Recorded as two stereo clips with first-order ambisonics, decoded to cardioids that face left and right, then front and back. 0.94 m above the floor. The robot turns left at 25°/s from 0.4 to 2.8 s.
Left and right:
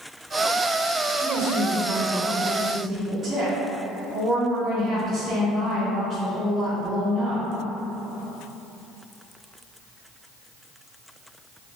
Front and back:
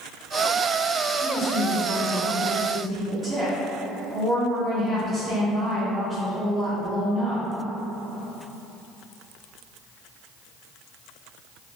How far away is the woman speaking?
About 0.7 m.